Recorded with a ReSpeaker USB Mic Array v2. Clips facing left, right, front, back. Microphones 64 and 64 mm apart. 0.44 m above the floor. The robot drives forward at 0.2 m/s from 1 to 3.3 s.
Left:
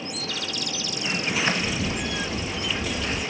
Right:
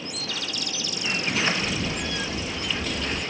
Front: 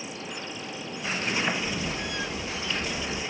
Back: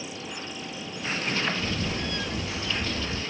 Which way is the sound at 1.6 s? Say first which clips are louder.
Left 1 dB, back 1 dB; 155° right.